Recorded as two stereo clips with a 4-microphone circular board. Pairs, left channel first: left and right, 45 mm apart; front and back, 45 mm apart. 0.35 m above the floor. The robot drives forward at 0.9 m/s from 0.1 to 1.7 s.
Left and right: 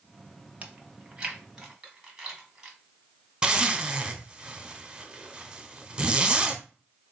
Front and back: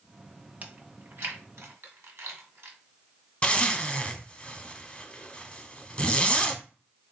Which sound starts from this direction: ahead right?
A zipper, at 3.4 s.